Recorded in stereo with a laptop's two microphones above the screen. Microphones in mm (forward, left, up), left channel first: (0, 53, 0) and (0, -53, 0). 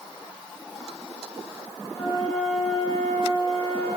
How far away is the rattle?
I don't hear a rattle.